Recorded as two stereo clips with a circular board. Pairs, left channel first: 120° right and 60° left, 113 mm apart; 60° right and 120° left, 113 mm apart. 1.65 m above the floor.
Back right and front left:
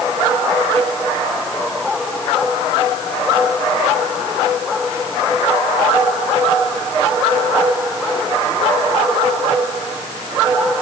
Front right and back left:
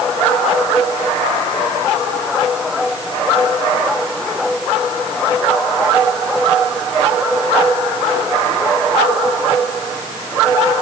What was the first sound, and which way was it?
Only background noise.